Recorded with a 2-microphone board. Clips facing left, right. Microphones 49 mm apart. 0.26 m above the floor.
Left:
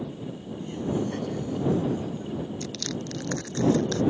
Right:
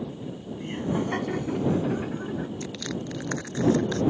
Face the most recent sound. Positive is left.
turn(degrees=-15)  # may be behind; listen again after turning